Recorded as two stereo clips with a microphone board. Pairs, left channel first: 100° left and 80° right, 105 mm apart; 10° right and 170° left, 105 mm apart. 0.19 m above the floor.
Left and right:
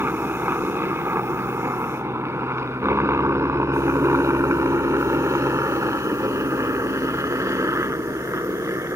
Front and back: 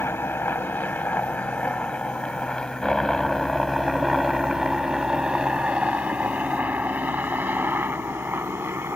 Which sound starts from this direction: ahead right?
A helicopter, at 0.0 s.